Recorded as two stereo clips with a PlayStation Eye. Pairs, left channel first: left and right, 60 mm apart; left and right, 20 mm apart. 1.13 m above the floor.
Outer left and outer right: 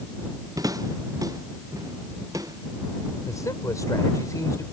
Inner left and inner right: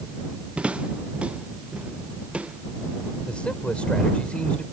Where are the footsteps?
80° right; by 3.1 s 75° right (ahead or behind).